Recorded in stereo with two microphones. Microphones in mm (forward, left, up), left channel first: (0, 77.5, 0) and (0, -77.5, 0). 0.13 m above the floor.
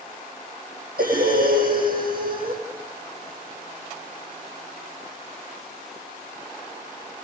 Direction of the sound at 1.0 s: 75° right (ahead or behind).